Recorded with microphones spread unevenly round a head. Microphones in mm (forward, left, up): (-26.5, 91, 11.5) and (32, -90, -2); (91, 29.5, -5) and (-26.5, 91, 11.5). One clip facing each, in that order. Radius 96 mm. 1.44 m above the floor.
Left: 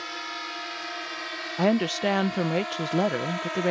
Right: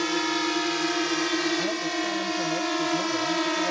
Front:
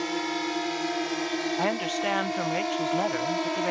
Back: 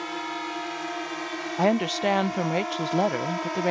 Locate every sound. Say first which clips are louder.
0.0 s a drone: right 15 dB, front 3 dB; 95° right; by 3.7 s 100° right
1.6 s a woman speaking: left 5 dB, back 9 dB; 95° left